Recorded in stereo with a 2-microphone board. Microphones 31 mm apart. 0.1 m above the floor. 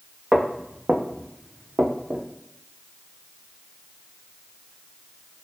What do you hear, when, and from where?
0.3 s footsteps: 35° right (ahead or behind), 0.7 m; by 2.2 s 60° right (ahead or behind), 0.8 m